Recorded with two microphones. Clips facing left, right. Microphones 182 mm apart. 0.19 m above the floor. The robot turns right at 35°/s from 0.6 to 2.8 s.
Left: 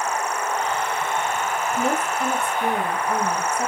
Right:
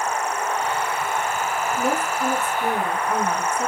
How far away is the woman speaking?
About 1.2 m.